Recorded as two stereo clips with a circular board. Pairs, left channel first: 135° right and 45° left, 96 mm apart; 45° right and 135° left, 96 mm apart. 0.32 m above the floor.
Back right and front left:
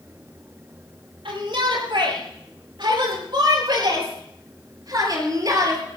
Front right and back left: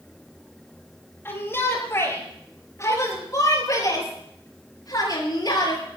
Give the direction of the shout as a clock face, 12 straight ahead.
11 o'clock.